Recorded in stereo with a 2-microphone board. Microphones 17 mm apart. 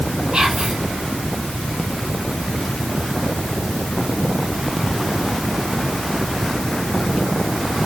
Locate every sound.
0.3 s whispering: 55° right (ahead or behind), 2.5 m